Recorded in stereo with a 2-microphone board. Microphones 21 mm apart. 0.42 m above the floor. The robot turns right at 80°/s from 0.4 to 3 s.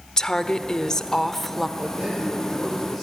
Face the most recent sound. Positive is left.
turn(degrees=5)